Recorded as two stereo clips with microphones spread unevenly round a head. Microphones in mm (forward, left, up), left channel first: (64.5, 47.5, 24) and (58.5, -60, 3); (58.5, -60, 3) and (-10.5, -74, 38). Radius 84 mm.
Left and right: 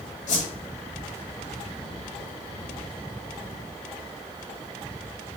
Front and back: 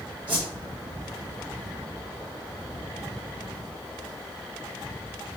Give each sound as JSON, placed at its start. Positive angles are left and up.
{"t": 0.3, "sound": "a whoosh", "azimuth_deg": 90, "distance_m": 2.0}